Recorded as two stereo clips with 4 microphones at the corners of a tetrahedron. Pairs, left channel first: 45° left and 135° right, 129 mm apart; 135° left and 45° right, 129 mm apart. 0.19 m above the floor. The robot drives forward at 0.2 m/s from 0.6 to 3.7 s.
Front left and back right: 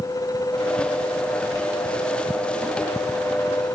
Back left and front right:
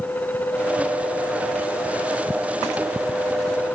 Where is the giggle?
No giggle in this recording.